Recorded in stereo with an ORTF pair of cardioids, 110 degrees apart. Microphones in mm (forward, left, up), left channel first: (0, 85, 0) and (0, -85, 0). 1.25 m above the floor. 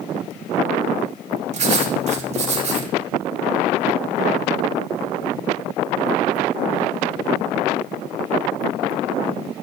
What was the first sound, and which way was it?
Writing, 40° right.